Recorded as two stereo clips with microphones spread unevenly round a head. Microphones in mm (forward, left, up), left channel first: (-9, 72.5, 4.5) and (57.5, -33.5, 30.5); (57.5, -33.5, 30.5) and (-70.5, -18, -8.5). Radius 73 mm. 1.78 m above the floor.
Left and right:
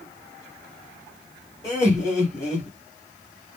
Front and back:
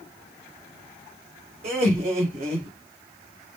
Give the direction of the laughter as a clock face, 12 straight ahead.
5 o'clock.